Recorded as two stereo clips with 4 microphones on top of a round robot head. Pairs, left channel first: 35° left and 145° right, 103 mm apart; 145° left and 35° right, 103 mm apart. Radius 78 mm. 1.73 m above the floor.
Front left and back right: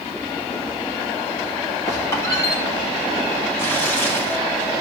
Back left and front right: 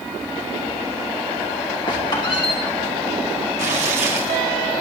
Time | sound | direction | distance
1.9 | a squeak | 95° left | 2.5 m
3.6 | tearing paper | 35° right | 1.9 m